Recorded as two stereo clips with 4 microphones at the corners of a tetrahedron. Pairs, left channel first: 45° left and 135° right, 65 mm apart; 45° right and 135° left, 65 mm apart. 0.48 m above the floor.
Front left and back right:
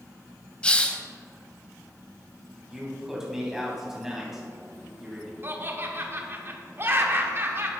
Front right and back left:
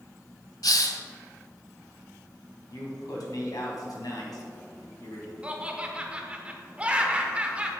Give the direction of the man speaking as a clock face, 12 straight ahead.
2 o'clock.